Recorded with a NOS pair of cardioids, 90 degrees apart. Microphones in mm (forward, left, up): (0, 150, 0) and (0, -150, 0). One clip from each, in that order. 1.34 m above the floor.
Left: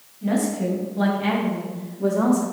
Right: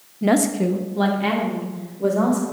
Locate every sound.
0.2 s a woman speaking: 55° right, 0.5 m; by 2.4 s 5° right, 1.7 m